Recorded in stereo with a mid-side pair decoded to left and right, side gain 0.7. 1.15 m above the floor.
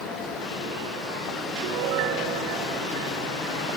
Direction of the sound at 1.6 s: 65° right.